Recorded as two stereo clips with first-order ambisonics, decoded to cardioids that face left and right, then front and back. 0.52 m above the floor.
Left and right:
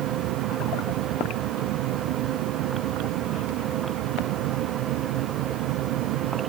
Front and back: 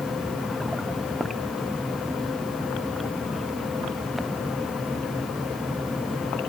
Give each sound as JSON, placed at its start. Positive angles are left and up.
{"t": 0.0, "sound": "an aircraft", "azimuth_deg": -85}